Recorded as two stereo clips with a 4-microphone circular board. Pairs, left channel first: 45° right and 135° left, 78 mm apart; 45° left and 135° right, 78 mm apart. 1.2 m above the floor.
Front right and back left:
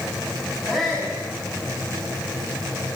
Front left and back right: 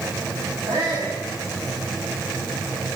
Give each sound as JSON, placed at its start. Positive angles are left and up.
{"t": 0.7, "sound": "a shout", "azimuth_deg": -130, "distance_m": 8.0}